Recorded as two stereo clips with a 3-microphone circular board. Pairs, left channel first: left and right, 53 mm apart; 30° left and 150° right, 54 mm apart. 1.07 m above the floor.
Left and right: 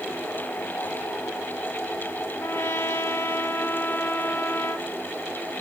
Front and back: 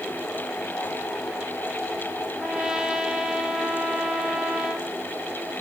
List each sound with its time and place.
2.4 s a trumpet: 135° left, 1.5 m